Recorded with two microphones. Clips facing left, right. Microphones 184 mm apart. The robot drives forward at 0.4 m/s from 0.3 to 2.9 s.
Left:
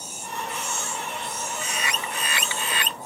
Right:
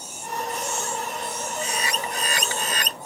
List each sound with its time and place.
1.6 s a bird: 30° right (ahead or behind); by 3.1 s 40° right (ahead or behind)